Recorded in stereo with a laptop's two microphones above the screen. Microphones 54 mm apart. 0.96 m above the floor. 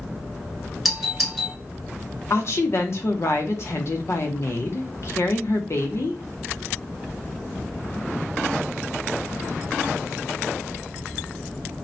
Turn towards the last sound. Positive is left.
turn(degrees=50)  # may be behind; listen again after turning